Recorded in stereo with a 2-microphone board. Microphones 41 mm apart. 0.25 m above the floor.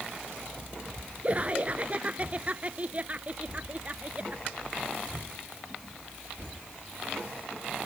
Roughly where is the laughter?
Right.